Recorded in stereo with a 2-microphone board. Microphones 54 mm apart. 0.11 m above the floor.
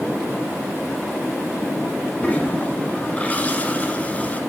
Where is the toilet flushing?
25° left (ahead or behind), 1.0 m.